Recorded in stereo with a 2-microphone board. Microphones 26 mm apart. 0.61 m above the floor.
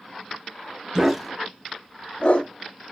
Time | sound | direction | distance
0.9 | a dog barking | 15° right (ahead or behind) | 0.5 m